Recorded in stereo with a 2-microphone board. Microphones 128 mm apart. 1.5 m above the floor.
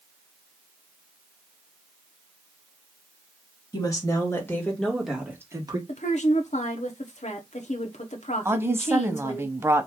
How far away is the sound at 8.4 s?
About 0.6 m.